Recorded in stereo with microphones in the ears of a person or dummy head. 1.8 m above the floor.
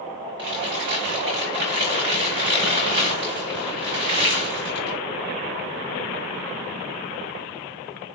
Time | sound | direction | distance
0.4 | crumpling | 25° right (ahead or behind) | 1.0 m